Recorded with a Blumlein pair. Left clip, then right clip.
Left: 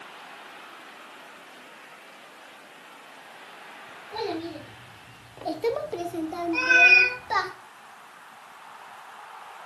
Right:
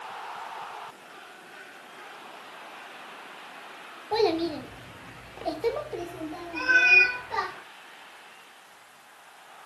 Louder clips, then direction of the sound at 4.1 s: Right 7 dB; 55° right.